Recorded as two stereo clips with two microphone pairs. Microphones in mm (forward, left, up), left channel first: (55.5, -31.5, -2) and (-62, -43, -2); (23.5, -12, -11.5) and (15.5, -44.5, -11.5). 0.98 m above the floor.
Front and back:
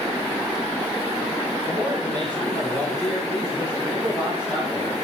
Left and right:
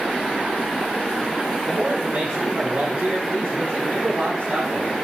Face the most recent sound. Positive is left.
turn(degrees=-105)